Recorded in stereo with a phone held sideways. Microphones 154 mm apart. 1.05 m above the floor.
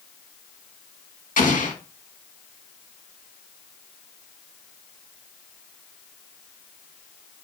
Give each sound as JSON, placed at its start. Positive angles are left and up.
{"t": 1.4, "sound": "an explosion", "side_deg": 55, "distance_m": 1.1}